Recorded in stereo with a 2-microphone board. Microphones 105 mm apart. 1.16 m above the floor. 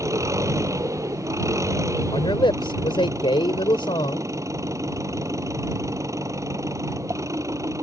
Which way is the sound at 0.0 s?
30° right (ahead or behind).